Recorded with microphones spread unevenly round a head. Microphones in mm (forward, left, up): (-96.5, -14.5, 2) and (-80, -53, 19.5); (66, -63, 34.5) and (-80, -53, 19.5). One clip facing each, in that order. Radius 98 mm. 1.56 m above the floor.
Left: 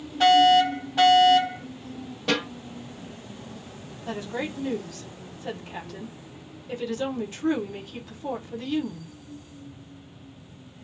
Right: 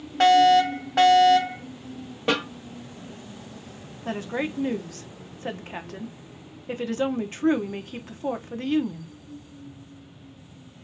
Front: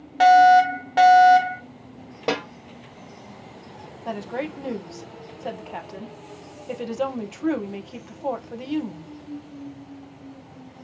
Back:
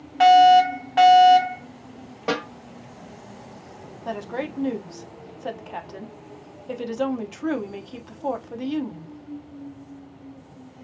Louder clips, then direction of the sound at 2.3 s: Right 1 dB, front 1 dB; 50° right.